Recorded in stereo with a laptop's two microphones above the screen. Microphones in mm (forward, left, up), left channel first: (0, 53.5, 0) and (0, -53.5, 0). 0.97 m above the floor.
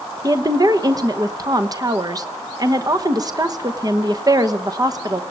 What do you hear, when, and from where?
0.2 s a woman speaking: 35° right (ahead or behind), 1.0 m